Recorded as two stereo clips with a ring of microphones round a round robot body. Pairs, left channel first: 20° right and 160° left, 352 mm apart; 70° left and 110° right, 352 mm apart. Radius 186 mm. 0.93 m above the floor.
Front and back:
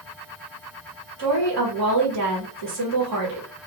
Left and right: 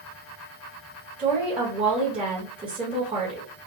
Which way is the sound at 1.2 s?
175° left.